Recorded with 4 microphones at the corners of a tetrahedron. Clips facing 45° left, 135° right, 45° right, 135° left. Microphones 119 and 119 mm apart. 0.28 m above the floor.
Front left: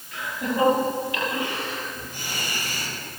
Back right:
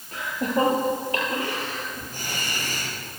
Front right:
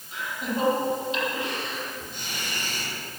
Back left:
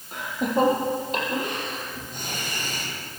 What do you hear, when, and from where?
0.1 s laughter: 175° left, 7.5 m; by 2.9 s straight behind, 9.5 m